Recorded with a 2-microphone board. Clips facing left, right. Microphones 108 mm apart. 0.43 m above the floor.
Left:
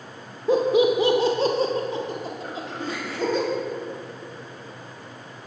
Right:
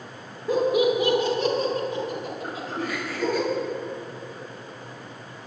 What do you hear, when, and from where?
0.5 s laughter: 25° left (ahead or behind), 0.8 m
2.4 s throat clearing: 40° right (ahead or behind), 2 m